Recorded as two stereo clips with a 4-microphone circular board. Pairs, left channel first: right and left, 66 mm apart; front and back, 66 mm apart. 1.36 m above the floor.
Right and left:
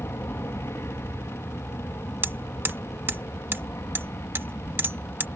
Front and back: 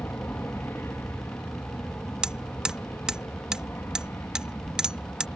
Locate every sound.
0.0 s an aircraft: 50° right
2.2 s hammering: 110° left